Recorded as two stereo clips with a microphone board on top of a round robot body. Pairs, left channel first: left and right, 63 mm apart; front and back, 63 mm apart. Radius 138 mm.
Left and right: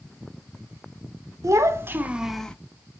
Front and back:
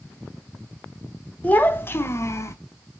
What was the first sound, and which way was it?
A child speaking, 60° right.